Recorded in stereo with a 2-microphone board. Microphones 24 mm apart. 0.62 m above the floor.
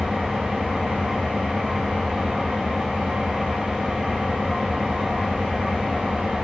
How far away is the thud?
No thud in this recording.